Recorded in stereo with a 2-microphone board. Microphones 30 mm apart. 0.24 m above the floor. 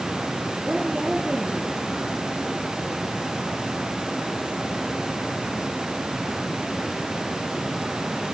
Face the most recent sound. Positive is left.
turn(degrees=-30)  # may be behind; listen again after turning